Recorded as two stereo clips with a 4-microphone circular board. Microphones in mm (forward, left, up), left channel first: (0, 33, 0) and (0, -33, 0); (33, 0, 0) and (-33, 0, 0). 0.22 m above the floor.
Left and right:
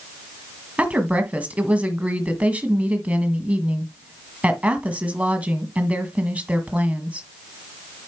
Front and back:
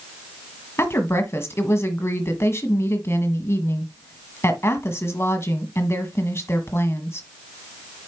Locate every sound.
0.8 s a woman speaking: 30° right, 1.5 m